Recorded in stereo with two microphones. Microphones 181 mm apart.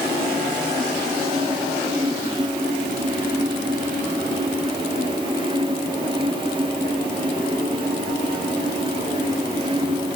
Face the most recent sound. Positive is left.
No sound to turn to.